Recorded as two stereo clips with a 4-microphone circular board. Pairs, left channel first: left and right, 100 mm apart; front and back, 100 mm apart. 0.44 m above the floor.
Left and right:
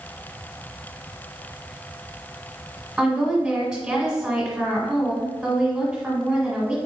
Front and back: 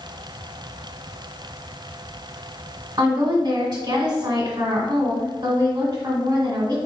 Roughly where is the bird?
No bird in this recording.